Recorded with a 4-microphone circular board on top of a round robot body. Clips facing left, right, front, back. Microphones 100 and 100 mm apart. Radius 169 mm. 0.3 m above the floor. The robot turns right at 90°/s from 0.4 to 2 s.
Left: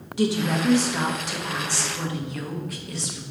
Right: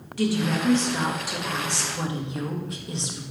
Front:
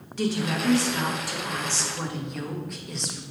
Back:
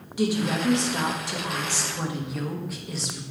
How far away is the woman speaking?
About 1.4 m.